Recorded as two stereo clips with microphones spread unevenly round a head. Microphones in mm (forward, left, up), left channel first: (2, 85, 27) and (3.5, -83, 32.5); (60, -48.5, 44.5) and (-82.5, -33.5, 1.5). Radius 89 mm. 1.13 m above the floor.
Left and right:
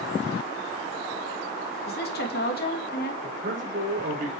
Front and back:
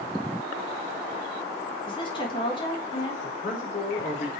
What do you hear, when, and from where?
1.9 s a woman speaking: 60° left, 2.5 m
3.2 s a man speaking: 45° right, 4 m